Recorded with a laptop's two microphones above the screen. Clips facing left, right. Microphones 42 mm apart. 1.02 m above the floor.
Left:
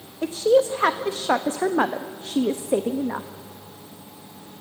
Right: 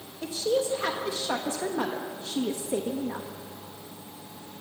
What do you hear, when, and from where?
0.2 s a woman speaking: 45° left (ahead or behind), 1.1 m